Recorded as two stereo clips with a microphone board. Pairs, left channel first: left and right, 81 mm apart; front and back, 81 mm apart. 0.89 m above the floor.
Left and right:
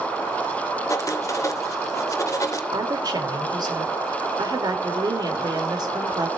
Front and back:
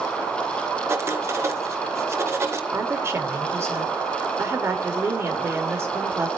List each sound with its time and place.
0.9 s writing: 130° left, 1.4 m
2.7 s a woman speaking: 120° right, 2.5 m